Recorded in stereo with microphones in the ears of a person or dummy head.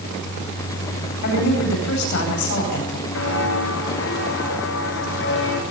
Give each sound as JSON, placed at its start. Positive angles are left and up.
{"t": 1.2, "sound": "a woman speaking", "side_deg": 60, "distance_m": 9.5}
{"t": 3.1, "sound": "footsteps", "side_deg": 75, "distance_m": 6.5}